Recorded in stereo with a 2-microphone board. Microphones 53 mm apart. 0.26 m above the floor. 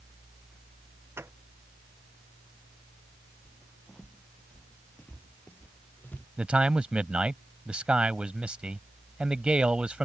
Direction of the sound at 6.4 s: 20° right (ahead or behind).